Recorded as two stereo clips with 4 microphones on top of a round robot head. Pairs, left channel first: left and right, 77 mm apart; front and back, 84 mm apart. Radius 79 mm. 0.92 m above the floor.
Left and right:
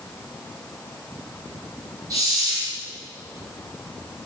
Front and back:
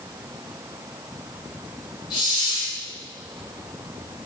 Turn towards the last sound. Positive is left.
turn(degrees=-45)